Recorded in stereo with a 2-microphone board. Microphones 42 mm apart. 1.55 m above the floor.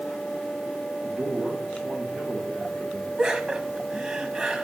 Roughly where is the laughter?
Right.